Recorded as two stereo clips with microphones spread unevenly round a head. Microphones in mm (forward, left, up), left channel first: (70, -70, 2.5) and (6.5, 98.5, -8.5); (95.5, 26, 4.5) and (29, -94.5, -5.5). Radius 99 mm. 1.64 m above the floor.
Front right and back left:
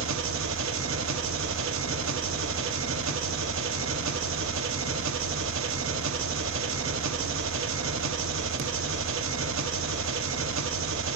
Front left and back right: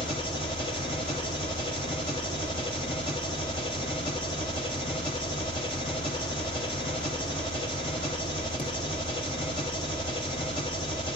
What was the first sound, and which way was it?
An engine running, 125° left.